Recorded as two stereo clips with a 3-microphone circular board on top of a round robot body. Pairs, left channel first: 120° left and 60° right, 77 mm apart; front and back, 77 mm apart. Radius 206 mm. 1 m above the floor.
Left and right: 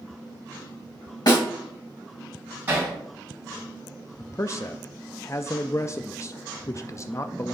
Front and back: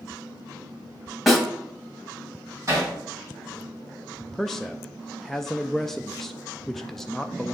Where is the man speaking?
85° left, 0.6 m.